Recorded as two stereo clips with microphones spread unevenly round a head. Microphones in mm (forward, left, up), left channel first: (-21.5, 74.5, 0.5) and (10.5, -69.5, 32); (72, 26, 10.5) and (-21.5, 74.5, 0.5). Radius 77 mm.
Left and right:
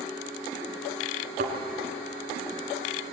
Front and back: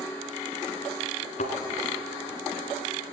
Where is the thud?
45° right, 3 m.